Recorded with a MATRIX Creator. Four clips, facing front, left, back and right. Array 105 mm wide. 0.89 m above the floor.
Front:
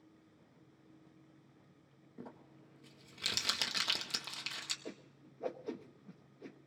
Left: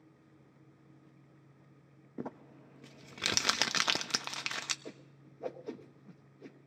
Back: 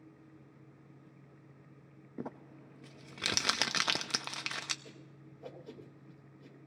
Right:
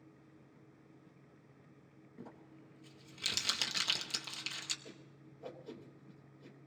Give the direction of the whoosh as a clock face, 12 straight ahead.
10 o'clock.